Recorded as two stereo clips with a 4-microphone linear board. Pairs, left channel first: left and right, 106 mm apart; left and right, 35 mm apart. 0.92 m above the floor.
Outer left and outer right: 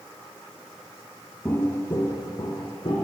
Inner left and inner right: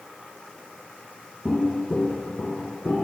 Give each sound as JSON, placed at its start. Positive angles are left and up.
{"t": 1.4, "sound": "footsteps", "side_deg": 20, "distance_m": 0.9}